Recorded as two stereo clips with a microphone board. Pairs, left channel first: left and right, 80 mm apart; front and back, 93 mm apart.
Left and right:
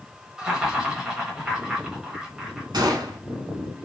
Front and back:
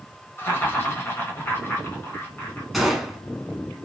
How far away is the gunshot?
About 1.0 m.